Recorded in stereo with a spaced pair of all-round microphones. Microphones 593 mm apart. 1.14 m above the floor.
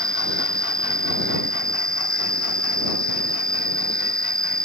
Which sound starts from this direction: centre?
An insect, at 0.0 s.